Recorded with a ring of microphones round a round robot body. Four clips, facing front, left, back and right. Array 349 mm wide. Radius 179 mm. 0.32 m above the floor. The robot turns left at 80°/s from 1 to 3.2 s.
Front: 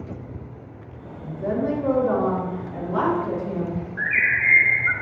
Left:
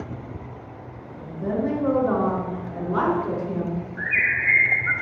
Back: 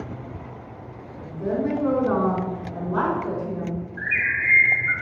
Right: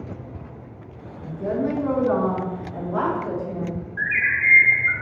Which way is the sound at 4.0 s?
50° left.